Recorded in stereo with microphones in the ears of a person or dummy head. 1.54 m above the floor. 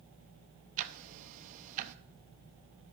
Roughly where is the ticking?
Right.